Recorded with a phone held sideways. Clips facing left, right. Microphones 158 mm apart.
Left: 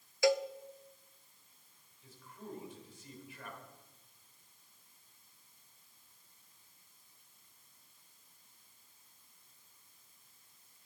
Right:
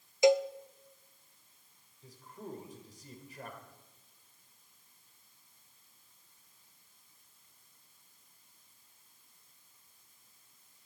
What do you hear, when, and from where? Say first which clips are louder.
0.2 s a cowbell: right 5 dB; 20° right (ahead or behind), 0.6 m
2.0 s a man speaking: right 3 dB; 40° right (ahead or behind), 4 m